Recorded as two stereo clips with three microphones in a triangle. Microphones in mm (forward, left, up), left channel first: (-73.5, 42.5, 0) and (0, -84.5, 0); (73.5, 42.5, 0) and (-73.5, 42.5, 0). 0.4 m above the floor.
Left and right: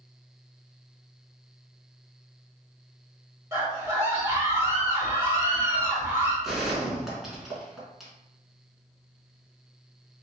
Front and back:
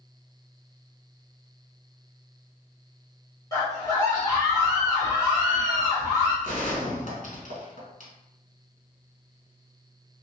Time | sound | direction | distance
3.5 | a scream | 15° right | 1.3 m
6.4 | a gunshot | 30° left | 1.0 m